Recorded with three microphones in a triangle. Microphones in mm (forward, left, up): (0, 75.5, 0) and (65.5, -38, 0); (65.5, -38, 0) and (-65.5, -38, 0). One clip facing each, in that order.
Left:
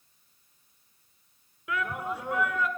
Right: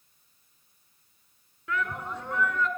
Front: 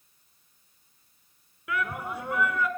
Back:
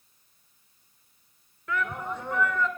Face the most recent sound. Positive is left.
turn(degrees=60)